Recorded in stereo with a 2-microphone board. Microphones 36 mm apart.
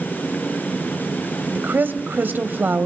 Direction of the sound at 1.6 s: 65° right (ahead or behind).